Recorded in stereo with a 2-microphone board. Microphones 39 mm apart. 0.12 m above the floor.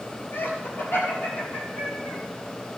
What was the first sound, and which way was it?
Laughter, 60° left (ahead or behind).